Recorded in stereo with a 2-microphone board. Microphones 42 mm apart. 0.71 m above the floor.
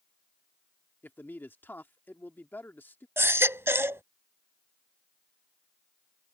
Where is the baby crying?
75° right (ahead or behind).